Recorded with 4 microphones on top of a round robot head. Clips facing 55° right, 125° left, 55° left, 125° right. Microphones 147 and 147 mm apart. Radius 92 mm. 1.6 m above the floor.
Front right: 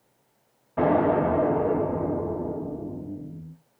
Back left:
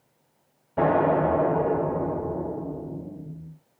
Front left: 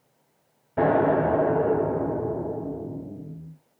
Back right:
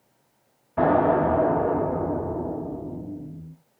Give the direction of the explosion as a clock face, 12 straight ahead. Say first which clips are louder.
Even, back right 1 dB; 10 o'clock.